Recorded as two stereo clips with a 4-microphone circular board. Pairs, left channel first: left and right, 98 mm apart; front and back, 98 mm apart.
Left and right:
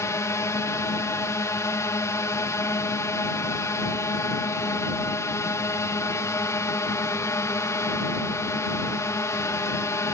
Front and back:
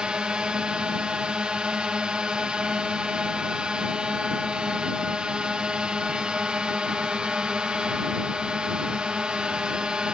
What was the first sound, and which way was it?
A drone, 105° left.